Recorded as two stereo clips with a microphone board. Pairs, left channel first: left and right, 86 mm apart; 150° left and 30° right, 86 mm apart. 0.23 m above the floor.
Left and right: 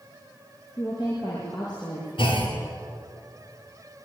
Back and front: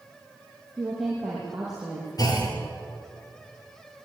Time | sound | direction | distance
0.8 | a woman speaking | 60° left | 6.5 m
2.2 | a clunk | 105° left | 7 m